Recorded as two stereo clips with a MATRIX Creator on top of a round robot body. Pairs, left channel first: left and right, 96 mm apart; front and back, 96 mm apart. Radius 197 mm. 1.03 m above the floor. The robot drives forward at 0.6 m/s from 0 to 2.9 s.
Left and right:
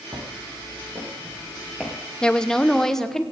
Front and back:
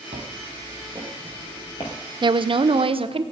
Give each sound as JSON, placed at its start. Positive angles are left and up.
{"t": 0.1, "sound": "footsteps", "azimuth_deg": -140, "distance_m": 1.3}
{"t": 2.2, "sound": "a woman speaking", "azimuth_deg": 170, "distance_m": 0.6}